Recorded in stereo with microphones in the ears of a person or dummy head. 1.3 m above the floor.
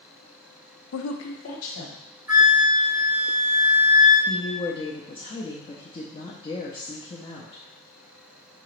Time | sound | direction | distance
0.9 | a woman speaking | 70° left (ahead or behind) | 0.5 m
2.3 | a flute | 10° right (ahead or behind) | 2 m
4.3 | a woman speaking | 20° left (ahead or behind) | 0.5 m